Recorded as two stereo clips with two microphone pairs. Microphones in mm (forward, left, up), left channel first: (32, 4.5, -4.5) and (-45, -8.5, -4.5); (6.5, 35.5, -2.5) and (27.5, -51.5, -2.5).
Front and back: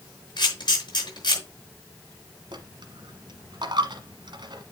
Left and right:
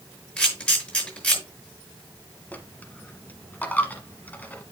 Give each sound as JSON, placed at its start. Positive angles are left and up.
{"t": 0.4, "sound": "a camera shutter", "azimuth_deg": 25, "distance_m": 5.5}
{"t": 2.5, "sound": "a dropped coin", "azimuth_deg": 175, "distance_m": 1.3}